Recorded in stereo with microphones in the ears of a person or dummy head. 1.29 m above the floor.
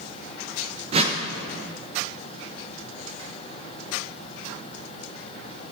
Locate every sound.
0.9 s a whoosh: 30° right (ahead or behind), 0.6 m